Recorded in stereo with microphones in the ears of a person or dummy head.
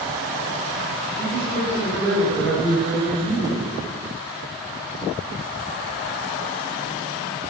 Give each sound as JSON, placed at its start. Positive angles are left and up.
{"t": 1.2, "sound": "a man speaking", "side_deg": 15, "distance_m": 5.0}